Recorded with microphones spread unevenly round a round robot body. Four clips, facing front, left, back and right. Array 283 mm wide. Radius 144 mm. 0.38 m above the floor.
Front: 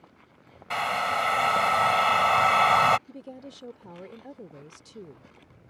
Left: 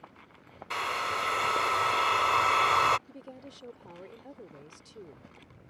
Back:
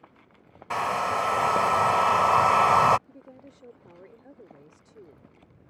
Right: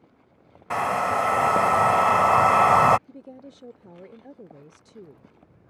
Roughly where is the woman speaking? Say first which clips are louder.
Right 3 dB, front 6 dB; ahead right.